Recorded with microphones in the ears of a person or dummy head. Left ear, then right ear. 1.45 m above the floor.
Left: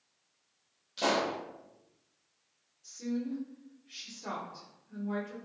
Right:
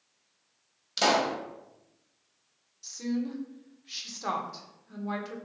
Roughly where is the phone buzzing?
I don't hear a phone buzzing.